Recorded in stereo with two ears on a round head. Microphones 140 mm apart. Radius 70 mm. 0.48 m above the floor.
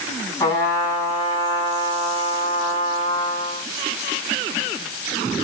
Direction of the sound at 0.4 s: 15° left (ahead or behind).